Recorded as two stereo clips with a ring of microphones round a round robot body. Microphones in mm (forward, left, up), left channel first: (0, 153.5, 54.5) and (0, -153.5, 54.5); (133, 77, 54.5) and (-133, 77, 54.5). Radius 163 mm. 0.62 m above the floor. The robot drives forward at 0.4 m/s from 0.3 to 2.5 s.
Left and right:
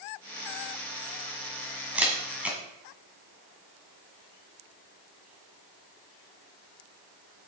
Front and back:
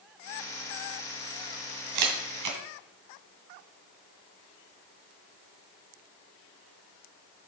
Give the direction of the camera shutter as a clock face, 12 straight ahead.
6 o'clock.